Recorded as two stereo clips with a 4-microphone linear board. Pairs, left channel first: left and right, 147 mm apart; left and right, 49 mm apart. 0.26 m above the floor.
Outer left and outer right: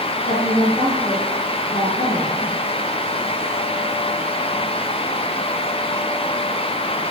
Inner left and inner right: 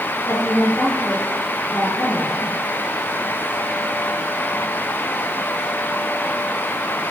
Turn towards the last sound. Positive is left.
turn(degrees=70)  # may be behind; listen again after turning